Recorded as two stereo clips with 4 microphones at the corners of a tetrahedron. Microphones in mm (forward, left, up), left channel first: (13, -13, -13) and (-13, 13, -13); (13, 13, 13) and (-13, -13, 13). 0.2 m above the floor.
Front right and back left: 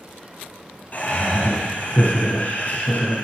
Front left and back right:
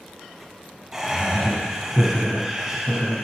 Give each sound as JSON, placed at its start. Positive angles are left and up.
{"t": 0.9, "sound": "laughter", "azimuth_deg": -60, "distance_m": 1.5}